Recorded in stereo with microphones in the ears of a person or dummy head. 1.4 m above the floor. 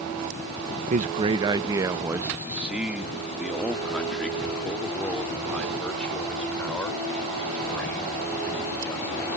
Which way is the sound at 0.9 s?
40° right (ahead or behind).